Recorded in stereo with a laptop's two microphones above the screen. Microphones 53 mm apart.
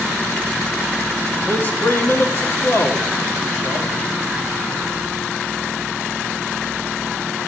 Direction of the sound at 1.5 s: 35° left (ahead or behind).